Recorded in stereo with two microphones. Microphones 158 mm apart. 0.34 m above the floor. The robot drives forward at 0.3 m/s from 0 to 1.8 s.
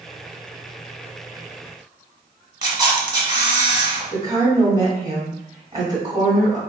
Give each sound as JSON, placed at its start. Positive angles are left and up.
{"t": 2.6, "sound": "a camera shutter", "side_deg": -25, "distance_m": 1.0}
{"t": 4.1, "sound": "a woman speaking", "side_deg": -25, "distance_m": 2.0}